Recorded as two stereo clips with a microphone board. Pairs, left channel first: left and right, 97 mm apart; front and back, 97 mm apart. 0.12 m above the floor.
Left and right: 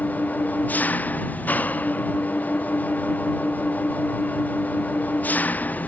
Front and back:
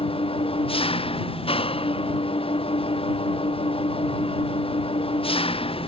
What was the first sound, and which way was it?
An engine running, 15° left.